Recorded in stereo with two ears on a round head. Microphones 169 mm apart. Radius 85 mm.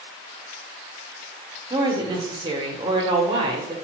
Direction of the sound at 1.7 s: 25° right (ahead or behind).